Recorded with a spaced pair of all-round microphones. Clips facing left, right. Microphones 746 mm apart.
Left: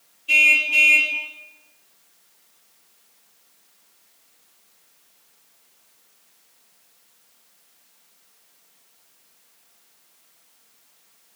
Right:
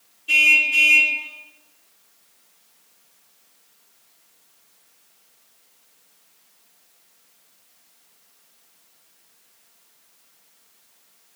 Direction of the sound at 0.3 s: 50° right (ahead or behind).